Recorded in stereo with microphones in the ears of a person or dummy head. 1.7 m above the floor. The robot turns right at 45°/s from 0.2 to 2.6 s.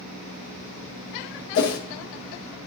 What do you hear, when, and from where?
1.6 s a whoosh: 65° left (ahead or behind), 0.7 m; by 1.8 s 55° left (ahead or behind), 0.7 m